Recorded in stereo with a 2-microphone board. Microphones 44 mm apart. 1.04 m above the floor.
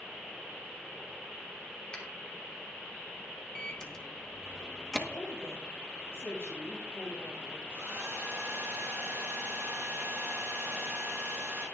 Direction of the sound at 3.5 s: 15° left (ahead or behind).